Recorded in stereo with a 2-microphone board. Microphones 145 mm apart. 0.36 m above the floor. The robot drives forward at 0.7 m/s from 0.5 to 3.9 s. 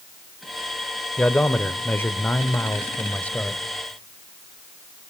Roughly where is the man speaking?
Centre.